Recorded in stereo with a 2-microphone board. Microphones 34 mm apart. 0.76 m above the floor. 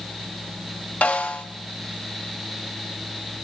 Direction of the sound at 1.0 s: 50° left (ahead or behind).